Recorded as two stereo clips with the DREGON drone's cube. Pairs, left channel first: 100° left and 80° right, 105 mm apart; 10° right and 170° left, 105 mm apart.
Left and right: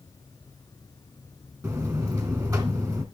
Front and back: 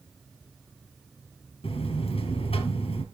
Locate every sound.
1.6 s a buzzer: 25° right, 1.8 m